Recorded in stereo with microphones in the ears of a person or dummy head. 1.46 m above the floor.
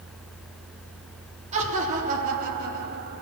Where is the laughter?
35° right (ahead or behind), 3.5 m; by 3.2 s 55° right (ahead or behind), 3 m.